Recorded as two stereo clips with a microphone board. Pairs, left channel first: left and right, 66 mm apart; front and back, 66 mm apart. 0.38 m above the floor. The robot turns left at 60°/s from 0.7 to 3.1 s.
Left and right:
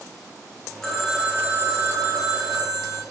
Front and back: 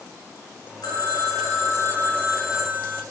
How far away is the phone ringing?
About 4 m.